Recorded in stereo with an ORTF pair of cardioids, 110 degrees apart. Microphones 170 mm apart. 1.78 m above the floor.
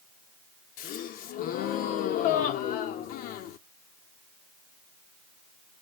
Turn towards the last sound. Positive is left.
turn(degrees=70)